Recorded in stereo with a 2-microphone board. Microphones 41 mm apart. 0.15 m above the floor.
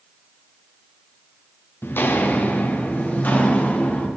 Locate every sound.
1.8 s footsteps: 65° left (ahead or behind), 1.6 m; by 4.1 s 50° left (ahead or behind), 5 m